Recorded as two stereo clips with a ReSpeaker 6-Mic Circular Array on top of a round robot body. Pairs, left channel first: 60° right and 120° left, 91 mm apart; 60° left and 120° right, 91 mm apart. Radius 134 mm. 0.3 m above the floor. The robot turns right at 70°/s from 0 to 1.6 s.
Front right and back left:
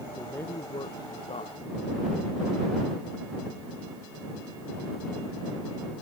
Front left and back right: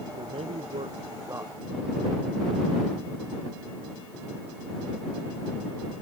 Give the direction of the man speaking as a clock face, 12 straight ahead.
5 o'clock.